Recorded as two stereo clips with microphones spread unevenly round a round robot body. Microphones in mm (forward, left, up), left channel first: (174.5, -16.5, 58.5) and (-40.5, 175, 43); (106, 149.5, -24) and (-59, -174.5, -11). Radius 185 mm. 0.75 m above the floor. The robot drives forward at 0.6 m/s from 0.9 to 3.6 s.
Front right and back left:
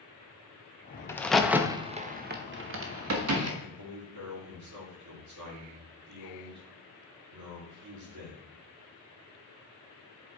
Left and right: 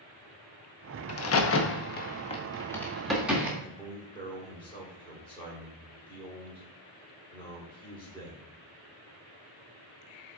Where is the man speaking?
140° left, 2.5 m.